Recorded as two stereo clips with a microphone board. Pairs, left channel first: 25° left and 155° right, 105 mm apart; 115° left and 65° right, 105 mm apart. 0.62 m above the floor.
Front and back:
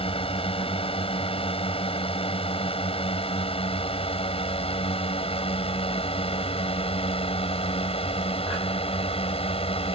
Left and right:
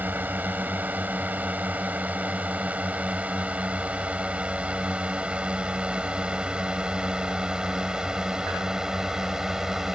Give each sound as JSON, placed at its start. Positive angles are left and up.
{"t": 0.0, "sound": "a drone", "azimuth_deg": 5}